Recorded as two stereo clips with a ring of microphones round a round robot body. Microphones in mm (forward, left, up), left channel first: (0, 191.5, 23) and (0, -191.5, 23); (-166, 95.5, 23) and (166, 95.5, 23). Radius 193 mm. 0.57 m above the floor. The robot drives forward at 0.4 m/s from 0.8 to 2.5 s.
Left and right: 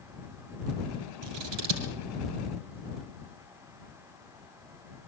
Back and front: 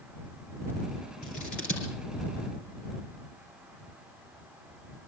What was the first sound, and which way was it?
Scissors, 110° right.